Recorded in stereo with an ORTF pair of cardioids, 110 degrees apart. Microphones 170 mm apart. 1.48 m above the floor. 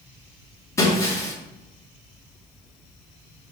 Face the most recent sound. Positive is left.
turn(degrees=20)